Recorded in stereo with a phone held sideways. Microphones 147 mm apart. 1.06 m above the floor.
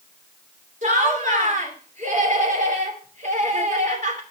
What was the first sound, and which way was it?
Laughter, 60° right (ahead or behind).